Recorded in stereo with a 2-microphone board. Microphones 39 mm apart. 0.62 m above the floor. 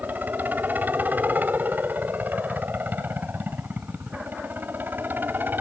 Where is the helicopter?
50° right (ahead or behind); by 5.6 s 60° right (ahead or behind).